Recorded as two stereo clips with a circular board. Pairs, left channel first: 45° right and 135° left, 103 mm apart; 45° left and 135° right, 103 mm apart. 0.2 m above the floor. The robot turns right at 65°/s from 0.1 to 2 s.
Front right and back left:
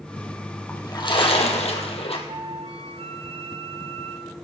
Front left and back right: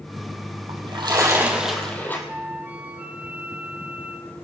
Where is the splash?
110° right, 2.5 m; by 2.2 s 25° right, 2.5 m.